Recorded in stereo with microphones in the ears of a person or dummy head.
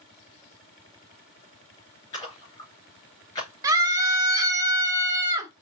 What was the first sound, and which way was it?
A splash, 20° left (ahead or behind).